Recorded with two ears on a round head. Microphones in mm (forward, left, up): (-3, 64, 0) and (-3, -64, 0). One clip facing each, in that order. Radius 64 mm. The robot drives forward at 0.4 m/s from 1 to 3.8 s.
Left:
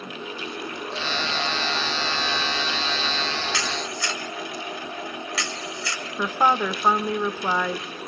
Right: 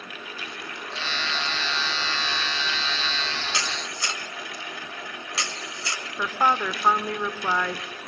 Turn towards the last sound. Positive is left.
turn(degrees=10)  # may be behind; listen again after turning